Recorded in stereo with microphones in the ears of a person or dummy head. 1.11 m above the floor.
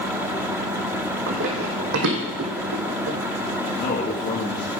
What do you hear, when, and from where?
1.3 s running footsteps: 70° right (ahead or behind), 3.5 m; by 3.2 s 60° right (ahead or behind), 3 m
3.7 s a man speaking: 35° left (ahead or behind), 1.6 m